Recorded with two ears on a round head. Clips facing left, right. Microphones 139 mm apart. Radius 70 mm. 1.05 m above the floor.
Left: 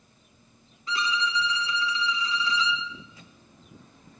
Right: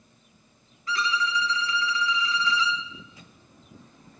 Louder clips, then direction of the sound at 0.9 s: Right 1 dB; 20° left (ahead or behind).